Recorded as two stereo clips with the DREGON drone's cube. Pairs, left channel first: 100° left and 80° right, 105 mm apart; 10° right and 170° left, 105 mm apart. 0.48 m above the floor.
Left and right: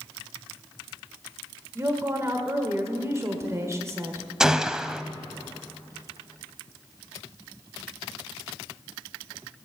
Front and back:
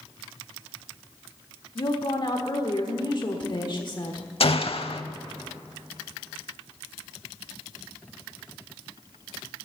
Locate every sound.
1.8 s a woman speaking: 30° right, 1.3 m
4.4 s a gunshot: 5° left, 0.6 m